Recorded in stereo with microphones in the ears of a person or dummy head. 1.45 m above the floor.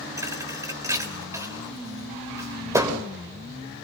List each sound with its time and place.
0.2 s a thud: 15° right (ahead or behind), 3 m